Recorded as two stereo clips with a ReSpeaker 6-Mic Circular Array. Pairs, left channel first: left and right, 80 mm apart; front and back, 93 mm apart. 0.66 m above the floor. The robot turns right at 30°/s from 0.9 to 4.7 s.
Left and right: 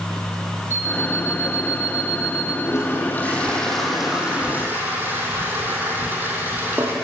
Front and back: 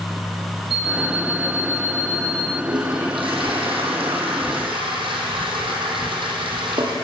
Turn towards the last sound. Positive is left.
turn(degrees=-155)